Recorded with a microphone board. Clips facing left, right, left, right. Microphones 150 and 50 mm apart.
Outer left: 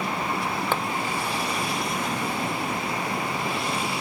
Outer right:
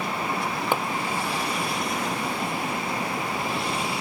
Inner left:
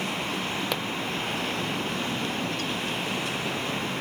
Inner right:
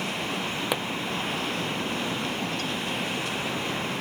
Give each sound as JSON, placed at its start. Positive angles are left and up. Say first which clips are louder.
{"t": 0.7, "sound": "a pop", "louder": "outer right 3 dB, inner right 4 dB", "side_deg": -15}